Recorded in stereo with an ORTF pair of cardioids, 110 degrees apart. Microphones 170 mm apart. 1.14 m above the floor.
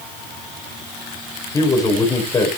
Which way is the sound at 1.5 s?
20° left.